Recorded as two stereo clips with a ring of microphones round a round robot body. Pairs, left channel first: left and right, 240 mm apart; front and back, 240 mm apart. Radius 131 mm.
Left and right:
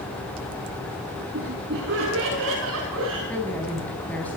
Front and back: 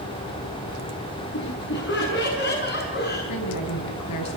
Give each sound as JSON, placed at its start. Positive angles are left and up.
{"t": 1.3, "sound": "laughter", "azimuth_deg": -40, "distance_m": 8.5}
{"t": 3.3, "sound": "a woman speaking", "azimuth_deg": 5, "distance_m": 5.0}